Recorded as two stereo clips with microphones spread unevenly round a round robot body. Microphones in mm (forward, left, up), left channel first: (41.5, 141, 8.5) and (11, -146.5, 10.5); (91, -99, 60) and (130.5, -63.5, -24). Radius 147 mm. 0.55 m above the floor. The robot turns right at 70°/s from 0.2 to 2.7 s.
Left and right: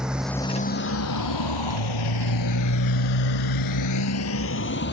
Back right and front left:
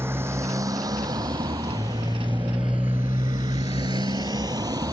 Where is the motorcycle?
10° right; by 4.9 s 30° left.